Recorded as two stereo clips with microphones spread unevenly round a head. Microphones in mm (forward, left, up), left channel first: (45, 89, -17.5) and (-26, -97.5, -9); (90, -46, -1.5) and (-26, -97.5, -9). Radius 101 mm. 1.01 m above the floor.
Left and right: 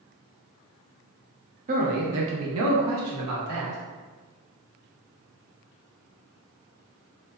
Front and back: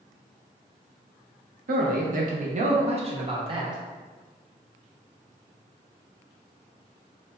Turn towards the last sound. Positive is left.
turn(degrees=-100)